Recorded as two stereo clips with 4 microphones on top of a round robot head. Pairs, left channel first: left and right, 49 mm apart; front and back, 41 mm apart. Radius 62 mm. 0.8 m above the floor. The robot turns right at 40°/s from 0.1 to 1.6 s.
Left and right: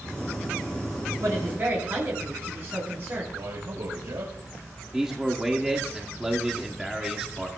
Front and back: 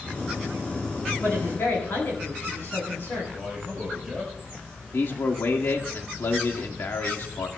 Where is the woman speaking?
55° right, 8.5 m; by 3.2 s 40° right, 8.5 m.